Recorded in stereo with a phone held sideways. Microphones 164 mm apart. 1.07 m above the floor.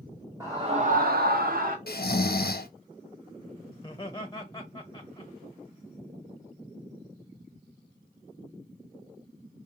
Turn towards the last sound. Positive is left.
turn(degrees=20)  # may be behind; listen again after turning